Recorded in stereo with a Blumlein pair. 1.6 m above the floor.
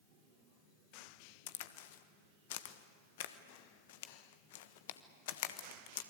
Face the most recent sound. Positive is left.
turn(degrees=55)